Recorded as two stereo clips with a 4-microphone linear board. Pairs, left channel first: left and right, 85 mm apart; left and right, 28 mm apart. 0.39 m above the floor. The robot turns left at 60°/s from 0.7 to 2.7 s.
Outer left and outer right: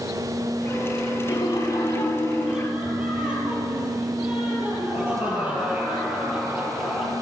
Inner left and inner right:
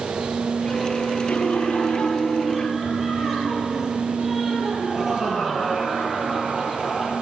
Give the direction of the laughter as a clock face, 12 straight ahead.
10 o'clock.